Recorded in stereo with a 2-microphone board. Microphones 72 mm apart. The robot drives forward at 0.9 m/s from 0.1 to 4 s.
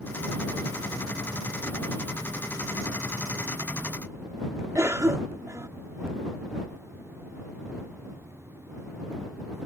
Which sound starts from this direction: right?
A cough, at 4.8 s.